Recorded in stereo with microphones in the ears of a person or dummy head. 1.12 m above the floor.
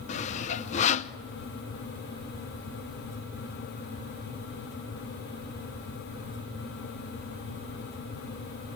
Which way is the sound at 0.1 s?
35° left (ahead or behind).